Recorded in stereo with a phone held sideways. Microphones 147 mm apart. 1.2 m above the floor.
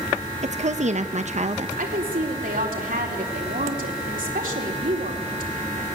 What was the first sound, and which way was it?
A woman speaking, 55° right (ahead or behind).